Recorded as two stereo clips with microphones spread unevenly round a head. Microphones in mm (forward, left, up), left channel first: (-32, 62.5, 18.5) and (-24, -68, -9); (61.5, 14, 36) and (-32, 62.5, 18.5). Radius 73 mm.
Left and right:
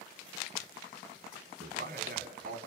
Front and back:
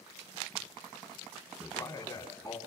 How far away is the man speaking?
About 4 m.